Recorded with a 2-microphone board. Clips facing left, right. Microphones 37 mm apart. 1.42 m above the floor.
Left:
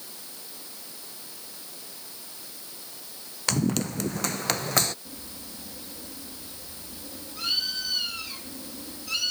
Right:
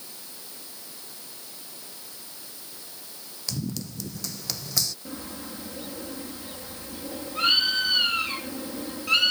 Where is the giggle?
I don't hear a giggle.